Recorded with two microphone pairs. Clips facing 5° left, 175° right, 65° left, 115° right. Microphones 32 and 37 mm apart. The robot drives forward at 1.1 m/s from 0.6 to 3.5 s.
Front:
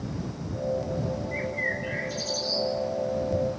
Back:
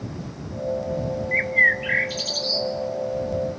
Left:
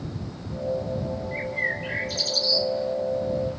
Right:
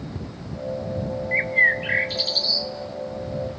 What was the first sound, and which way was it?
A bird, 155° right.